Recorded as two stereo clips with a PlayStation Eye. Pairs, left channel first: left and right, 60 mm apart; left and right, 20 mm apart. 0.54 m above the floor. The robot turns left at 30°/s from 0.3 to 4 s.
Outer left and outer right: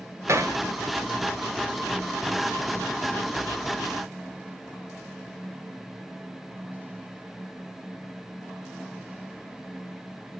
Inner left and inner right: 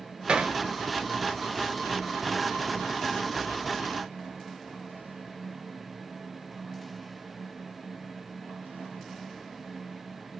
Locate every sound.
0.3 s hammering: 55° right (ahead or behind), 1.4 m